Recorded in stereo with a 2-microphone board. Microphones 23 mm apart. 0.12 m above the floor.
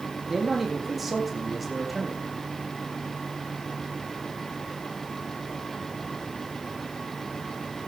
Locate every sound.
0.3 s a man speaking: 10° right (ahead or behind), 6 m; by 2.2 s centre (ahead or behind), 6.5 m